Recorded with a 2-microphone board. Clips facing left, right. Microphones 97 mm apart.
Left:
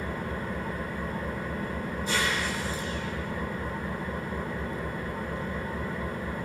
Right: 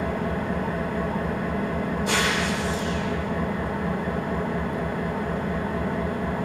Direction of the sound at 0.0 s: 75° right (ahead or behind).